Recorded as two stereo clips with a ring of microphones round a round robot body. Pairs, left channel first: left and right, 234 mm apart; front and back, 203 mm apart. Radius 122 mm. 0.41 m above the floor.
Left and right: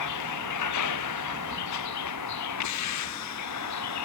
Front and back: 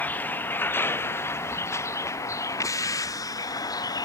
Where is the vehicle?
80° left; by 4.0 s 70° left.